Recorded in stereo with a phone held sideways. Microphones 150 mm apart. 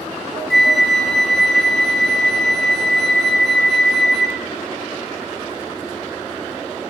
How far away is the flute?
About 0.6 m.